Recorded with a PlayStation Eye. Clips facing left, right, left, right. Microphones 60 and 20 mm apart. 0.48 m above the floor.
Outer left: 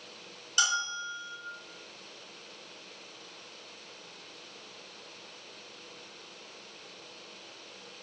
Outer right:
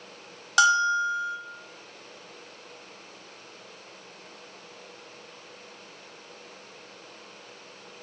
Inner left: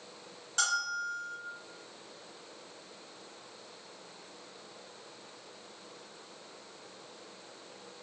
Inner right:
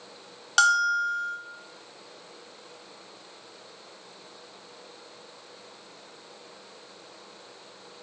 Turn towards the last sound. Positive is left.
turn(degrees=-85)